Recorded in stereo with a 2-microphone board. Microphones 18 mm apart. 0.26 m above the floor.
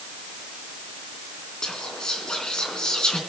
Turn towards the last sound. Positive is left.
turn(degrees=45)  # may be behind; listen again after turning